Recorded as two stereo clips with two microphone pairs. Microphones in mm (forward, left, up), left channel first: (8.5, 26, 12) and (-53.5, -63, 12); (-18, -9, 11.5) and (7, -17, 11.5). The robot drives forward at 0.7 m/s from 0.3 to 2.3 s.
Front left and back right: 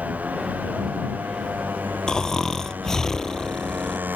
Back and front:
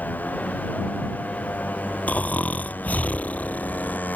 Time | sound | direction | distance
0.0 | a motorcycle | 160° left | ?
2.1 | snoring | 140° left | ?